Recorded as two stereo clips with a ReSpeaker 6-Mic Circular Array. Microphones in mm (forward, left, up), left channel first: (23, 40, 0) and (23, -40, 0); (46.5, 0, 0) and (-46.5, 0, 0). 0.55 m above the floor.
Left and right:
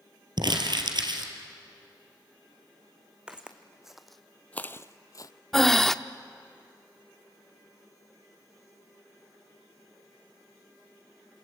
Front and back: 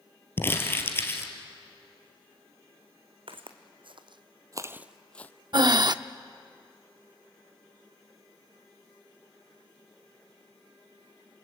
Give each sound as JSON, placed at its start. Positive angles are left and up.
{"t": 0.4, "sound": "crumpling", "azimuth_deg": -65, "distance_m": 2.5}
{"t": 3.3, "sound": "footsteps", "azimuth_deg": -165, "distance_m": 1.8}
{"t": 5.5, "sound": "breathing", "azimuth_deg": 175, "distance_m": 0.5}